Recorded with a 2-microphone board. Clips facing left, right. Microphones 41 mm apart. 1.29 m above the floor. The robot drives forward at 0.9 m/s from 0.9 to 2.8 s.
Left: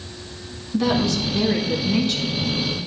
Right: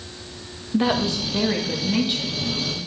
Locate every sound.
0.7 s a woman speaking: 25° right (ahead or behind), 1.7 m; by 2.8 s 15° right (ahead or behind), 3.5 m